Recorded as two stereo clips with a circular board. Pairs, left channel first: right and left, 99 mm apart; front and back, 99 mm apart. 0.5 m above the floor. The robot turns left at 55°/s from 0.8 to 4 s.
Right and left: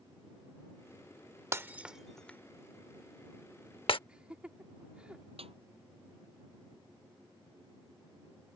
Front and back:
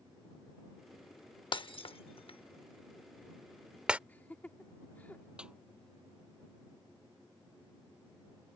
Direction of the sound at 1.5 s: 30° left.